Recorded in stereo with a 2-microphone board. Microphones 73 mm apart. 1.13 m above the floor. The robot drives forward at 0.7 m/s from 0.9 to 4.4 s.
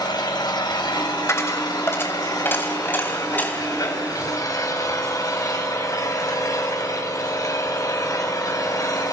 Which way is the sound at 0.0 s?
75° left (ahead or behind).